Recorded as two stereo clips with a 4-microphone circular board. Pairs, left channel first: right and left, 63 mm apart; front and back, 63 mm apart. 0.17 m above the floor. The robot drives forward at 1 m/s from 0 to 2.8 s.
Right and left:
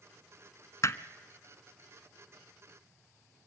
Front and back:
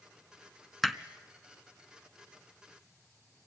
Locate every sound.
0.8 s hammering: 85° right, 0.9 m; by 1.0 s 100° right, 0.9 m